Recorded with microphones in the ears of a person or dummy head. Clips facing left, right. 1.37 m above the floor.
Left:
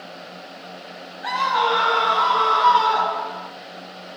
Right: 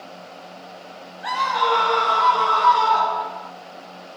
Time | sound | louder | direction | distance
1.2 | a scream | even | centre (ahead or behind) | 1.2 m